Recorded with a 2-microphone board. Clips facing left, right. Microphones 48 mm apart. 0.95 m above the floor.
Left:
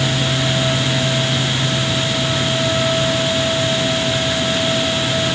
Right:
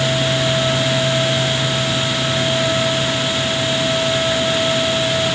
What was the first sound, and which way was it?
Only background noise.